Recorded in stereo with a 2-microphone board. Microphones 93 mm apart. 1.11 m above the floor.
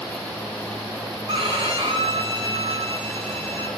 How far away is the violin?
About 3 m.